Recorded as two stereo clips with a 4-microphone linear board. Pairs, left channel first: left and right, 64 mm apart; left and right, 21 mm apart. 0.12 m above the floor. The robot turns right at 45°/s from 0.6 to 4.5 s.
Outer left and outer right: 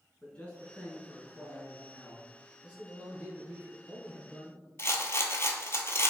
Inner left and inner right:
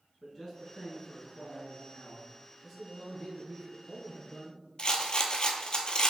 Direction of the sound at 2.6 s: 30° left.